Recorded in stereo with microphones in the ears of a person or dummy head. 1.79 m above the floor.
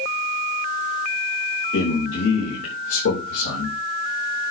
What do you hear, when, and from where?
1.7 s a man speaking: 85° left, 3.5 m